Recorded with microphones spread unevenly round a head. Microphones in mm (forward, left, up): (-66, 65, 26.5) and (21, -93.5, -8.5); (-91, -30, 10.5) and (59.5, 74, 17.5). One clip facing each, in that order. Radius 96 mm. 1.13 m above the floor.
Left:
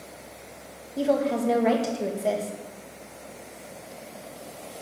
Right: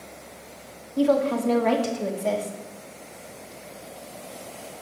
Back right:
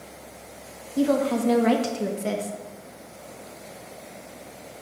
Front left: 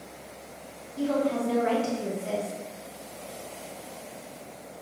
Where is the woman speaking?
155° right, 1.7 m.